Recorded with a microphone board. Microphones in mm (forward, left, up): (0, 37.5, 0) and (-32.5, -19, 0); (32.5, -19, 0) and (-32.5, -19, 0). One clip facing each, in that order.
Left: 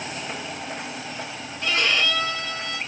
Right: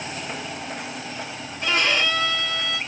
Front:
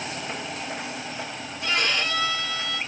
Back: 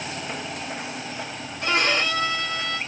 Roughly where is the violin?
Behind.